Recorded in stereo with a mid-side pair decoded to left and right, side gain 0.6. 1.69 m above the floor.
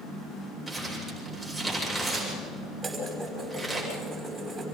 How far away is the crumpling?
About 8.5 m.